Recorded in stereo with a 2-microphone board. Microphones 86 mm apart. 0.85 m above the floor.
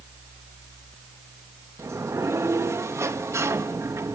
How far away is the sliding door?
About 1.2 m.